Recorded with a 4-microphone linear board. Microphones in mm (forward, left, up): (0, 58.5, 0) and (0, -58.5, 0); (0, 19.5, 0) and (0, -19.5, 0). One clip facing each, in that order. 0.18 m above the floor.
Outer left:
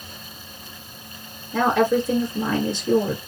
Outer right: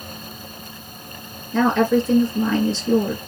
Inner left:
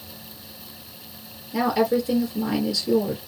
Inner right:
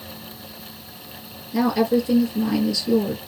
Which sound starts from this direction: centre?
A woman speaking, at 1.5 s.